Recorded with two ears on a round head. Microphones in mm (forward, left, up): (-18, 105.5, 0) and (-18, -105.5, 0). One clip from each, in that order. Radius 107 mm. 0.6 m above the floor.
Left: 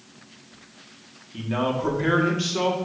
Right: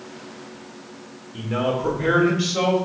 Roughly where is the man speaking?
Left.